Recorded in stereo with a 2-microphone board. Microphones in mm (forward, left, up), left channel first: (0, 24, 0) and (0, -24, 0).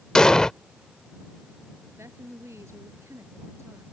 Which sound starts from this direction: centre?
An explosion, at 0.1 s.